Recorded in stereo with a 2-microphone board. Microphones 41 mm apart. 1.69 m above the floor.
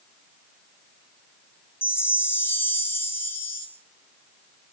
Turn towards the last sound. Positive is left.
turn(degrees=80)